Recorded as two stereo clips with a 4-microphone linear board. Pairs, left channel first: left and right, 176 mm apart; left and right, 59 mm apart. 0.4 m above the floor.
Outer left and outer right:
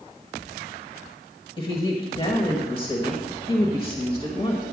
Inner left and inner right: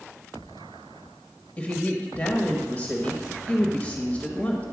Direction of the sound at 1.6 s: 30° left (ahead or behind).